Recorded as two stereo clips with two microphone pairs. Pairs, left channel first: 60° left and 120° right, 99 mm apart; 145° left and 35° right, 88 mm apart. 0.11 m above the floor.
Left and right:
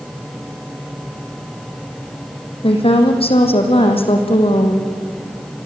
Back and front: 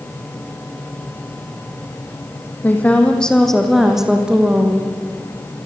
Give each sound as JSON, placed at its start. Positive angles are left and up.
{"t": 2.6, "sound": "a woman speaking", "azimuth_deg": 75, "distance_m": 4.5}